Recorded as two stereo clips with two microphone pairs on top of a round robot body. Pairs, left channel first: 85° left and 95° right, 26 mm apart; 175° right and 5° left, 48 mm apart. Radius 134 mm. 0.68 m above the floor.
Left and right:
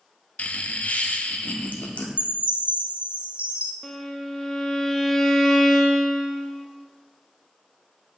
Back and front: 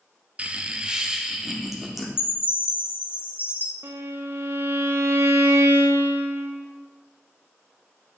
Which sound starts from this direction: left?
Laughter, at 0.4 s.